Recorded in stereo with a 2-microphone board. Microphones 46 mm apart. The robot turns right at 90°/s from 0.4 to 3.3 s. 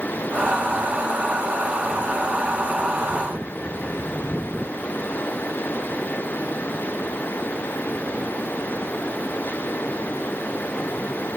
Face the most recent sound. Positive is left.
No sound to turn to.